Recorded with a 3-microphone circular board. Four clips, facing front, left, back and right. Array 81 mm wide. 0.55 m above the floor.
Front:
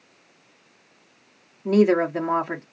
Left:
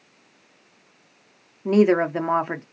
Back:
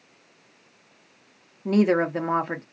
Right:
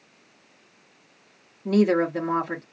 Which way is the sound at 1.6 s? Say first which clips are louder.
Left 3 dB, front 2 dB; 95° left.